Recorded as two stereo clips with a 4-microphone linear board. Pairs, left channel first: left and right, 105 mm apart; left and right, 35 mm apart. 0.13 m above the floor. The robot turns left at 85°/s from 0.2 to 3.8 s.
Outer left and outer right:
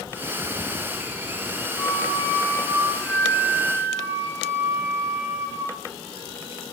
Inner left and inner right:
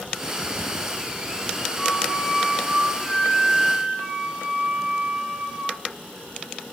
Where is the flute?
25° left (ahead or behind), 1.6 m; by 5.8 s 25° right (ahead or behind), 1.6 m.